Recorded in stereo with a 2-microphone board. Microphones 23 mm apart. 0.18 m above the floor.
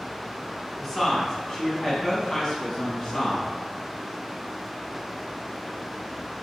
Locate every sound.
0.8 s a woman speaking: 10° left (ahead or behind), 1.1 m; by 3.5 s 35° left (ahead or behind), 1.5 m